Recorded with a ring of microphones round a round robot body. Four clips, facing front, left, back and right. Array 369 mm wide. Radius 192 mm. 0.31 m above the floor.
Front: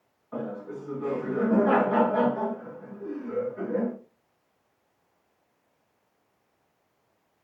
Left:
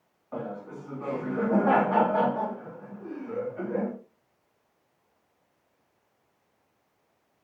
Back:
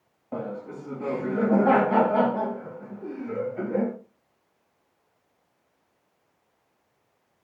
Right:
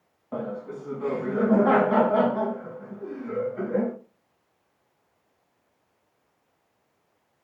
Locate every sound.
0.3 s laughter: 145° right, 3.5 m